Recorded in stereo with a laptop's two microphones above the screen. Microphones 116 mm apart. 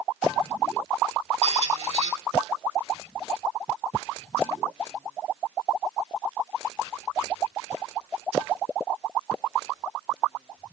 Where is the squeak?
70° right (ahead or behind), 3 m.